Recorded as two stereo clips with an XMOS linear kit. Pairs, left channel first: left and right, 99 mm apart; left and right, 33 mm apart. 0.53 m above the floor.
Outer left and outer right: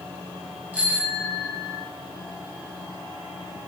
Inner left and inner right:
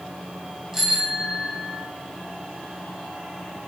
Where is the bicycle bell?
15° right (ahead or behind), 7 m; by 1.8 s 20° right (ahead or behind), 8 m.